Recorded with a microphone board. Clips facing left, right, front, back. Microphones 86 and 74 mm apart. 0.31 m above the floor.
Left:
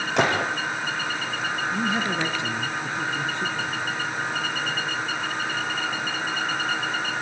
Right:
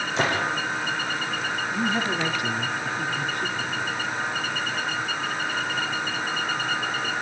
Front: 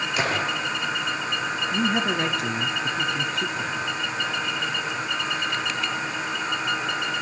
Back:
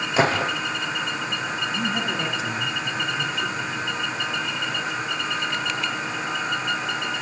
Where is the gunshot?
115° left, 6.5 m.